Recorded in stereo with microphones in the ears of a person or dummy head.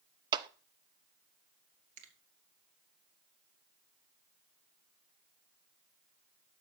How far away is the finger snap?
About 2 m.